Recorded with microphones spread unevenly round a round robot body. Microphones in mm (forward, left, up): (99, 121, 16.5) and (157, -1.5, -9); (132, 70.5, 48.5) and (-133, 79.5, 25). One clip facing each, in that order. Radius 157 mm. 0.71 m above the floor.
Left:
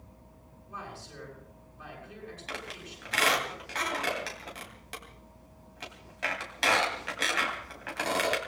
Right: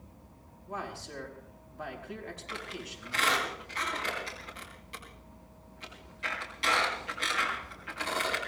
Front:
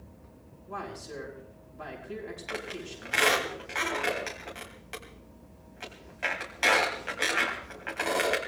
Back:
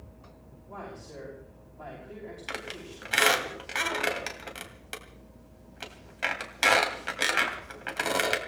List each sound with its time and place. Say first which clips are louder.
0.7 s a man speaking: right 5 dB, front 3 dB; 65° right, 5.5 m
2.5 s a squeak: even, front 3 dB; 140° left, 2.5 m